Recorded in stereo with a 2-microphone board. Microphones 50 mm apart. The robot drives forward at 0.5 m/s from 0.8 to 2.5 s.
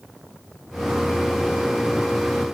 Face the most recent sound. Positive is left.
No sound to turn to.